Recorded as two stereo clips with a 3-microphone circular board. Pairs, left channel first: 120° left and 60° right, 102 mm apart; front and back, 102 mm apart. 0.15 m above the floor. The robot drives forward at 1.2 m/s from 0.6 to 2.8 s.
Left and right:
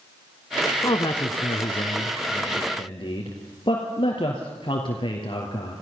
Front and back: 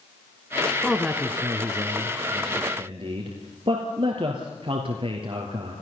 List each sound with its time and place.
0.8 s a man speaking: 90° left, 1.6 m; by 5.8 s 155° left, 3 m